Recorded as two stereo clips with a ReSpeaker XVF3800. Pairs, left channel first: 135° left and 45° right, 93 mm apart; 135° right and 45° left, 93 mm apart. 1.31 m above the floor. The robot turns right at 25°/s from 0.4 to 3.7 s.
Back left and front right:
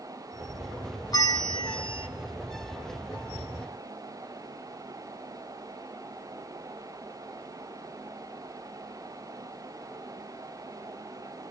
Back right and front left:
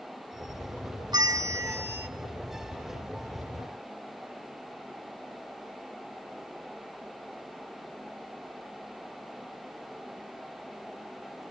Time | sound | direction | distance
1.1 | a bell | 90° left | 0.5 m